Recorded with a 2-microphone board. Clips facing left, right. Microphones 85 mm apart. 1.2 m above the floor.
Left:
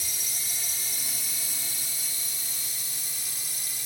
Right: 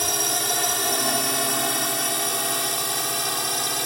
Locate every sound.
0.0 s a drone: 65° right (ahead or behind); by 3.9 s 70° right (ahead or behind)